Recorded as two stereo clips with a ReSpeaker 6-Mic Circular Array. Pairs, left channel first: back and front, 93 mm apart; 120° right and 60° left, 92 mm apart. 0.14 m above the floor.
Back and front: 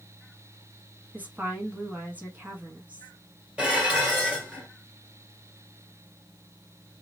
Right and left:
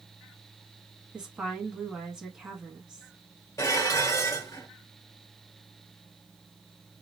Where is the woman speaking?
Straight ahead, 1.0 m.